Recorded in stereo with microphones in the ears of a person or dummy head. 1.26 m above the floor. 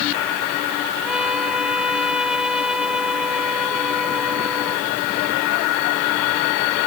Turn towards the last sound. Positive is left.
turn(degrees=-5)  # may be behind; listen again after turning